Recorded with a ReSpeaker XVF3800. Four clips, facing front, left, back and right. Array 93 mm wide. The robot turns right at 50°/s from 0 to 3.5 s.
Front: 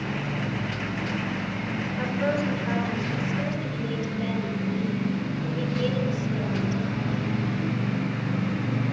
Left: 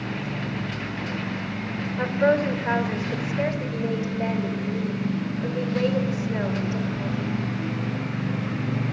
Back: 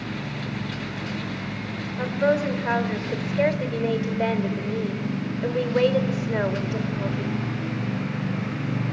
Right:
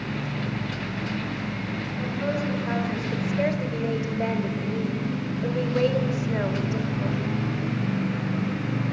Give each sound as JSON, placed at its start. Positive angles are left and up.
{"t": 2.0, "sound": "a woman speaking", "azimuth_deg": 115, "distance_m": 2.0}